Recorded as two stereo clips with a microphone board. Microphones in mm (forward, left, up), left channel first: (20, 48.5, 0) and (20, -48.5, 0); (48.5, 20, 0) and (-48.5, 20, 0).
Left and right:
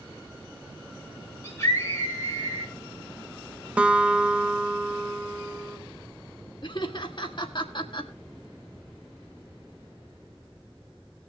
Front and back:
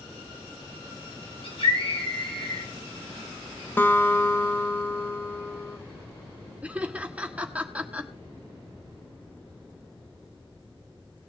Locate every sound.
1.4 s a scream: 30° left, 4 m
3.8 s a guitar: 35° right, 1.0 m
6.6 s laughter: 105° left, 1.7 m